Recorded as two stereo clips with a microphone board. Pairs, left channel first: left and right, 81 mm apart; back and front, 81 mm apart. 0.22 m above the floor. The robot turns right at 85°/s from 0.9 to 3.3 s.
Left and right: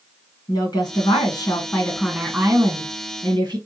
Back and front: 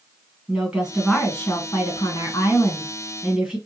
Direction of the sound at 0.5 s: 80° left.